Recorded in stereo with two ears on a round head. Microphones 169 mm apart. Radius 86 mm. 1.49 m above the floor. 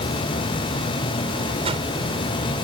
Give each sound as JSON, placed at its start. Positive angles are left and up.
{"t": 1.6, "sound": "a whoosh", "side_deg": -30}